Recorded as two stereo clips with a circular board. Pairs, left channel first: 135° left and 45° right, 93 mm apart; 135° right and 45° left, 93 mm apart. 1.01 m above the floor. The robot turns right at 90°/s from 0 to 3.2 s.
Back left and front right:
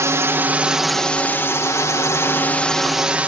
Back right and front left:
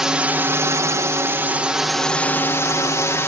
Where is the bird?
No bird in this recording.